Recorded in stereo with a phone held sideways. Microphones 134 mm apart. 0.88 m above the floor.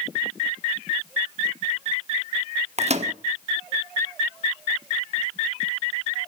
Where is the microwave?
55° right (ahead or behind), 1.0 m.